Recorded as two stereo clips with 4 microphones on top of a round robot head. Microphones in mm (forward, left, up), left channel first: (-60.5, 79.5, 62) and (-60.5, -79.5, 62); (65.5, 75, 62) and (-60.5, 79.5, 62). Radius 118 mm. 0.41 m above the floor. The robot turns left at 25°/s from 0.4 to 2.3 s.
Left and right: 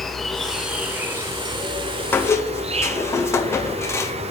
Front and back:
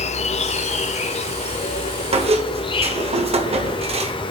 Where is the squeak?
165° left, 1.5 m; by 4.1 s 160° left, 1.5 m.